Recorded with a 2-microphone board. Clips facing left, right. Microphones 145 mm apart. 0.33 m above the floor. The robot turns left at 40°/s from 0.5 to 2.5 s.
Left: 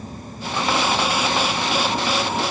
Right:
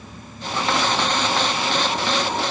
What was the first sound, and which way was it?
Only background noise.